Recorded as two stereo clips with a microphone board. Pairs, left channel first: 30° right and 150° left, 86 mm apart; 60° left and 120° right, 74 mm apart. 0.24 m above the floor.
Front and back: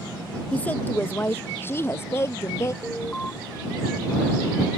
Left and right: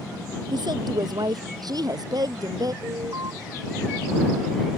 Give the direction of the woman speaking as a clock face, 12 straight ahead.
3 o'clock.